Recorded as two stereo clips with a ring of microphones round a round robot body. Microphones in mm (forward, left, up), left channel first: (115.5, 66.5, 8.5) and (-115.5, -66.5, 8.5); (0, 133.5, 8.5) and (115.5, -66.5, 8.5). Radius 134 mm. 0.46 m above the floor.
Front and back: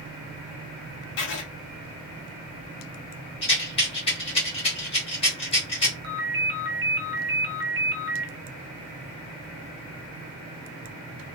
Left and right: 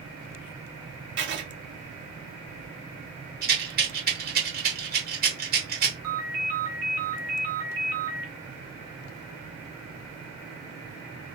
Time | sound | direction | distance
1.2 | writing | 20° right | 0.7 m
3.4 | a rattle | 30° right | 1.3 m
6.0 | a ringtone | 105° right | 0.9 m